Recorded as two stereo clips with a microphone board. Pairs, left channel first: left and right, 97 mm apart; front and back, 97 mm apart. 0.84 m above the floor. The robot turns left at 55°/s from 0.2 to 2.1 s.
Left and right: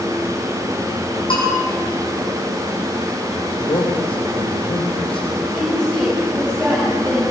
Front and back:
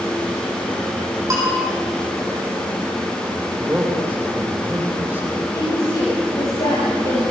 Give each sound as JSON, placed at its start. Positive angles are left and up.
{"t": 1.3, "sound": "a bell", "azimuth_deg": 120, "distance_m": 8.5}
{"t": 3.6, "sound": "a man speaking", "azimuth_deg": 110, "distance_m": 3.5}
{"t": 5.5, "sound": "a woman speaking", "azimuth_deg": 5, "distance_m": 6.0}